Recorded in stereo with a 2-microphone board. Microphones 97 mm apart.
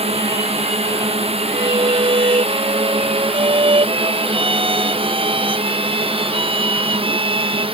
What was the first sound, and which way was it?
A drone, 80° right.